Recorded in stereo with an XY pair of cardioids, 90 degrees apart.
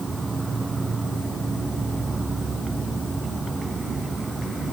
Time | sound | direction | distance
0.0 | an insect | 30° right | ?